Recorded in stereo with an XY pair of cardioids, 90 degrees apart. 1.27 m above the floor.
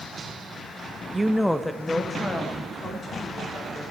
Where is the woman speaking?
25° right, 0.7 m; by 3.9 s 40° left, 4.5 m.